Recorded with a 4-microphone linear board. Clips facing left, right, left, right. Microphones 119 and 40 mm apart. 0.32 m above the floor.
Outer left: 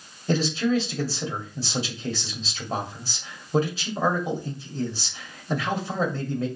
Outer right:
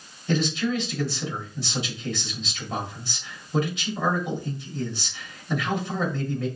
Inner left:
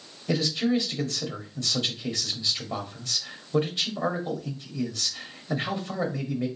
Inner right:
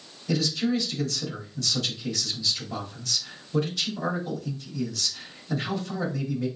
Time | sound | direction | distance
0.3 | a man speaking | 35° left (ahead or behind) | 1.5 m